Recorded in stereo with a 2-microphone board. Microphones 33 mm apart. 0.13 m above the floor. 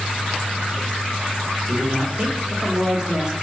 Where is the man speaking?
25° right (ahead or behind), 3.5 m.